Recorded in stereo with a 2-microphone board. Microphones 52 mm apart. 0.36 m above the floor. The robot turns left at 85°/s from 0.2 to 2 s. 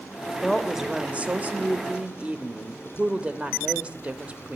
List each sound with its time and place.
0.3 s a woman speaking: 20° left, 0.9 m; by 4.6 s 125° right, 0.9 m